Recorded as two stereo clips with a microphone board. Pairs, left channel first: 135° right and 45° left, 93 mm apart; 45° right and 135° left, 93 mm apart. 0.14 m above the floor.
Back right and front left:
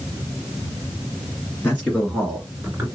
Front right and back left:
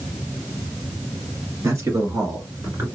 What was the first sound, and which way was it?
A man speaking, 165° left.